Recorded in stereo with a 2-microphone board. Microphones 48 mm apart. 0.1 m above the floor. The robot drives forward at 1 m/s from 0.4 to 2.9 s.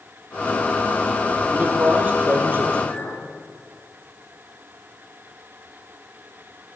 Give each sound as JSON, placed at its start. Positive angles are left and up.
{"t": 1.5, "sound": "a man speaking", "side_deg": -35, "distance_m": 2.5}
{"t": 2.9, "sound": "a clink", "side_deg": 60, "distance_m": 2.0}